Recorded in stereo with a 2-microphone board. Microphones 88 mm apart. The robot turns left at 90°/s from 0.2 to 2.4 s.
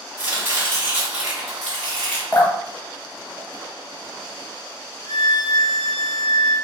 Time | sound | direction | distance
0.2 | chopping | 25° right (ahead or behind) | 1.5 m
2.3 | dripping | 25° left (ahead or behind) | 1.0 m
5.0 | a violin | 10° left (ahead or behind) | 2.0 m